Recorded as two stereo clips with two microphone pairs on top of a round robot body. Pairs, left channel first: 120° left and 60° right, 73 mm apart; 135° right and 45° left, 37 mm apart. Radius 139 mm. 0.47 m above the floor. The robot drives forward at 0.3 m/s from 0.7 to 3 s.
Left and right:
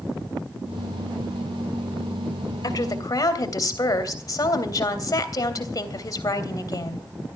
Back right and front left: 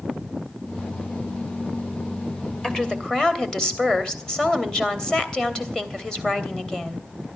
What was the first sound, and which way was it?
A woman speaking, 155° left.